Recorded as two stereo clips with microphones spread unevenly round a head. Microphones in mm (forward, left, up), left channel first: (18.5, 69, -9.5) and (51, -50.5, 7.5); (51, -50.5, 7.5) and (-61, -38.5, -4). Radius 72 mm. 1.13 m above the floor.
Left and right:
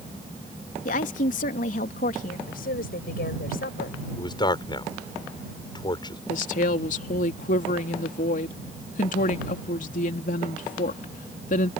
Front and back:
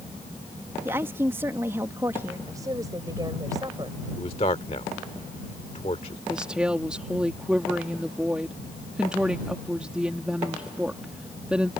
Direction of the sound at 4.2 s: 50° left.